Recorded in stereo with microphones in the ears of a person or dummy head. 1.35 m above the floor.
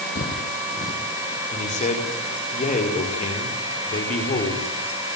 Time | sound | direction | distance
0.1 | footsteps | 55° left (ahead or behind) | 3 m
1.5 | a man speaking | 35° left (ahead or behind) | 5 m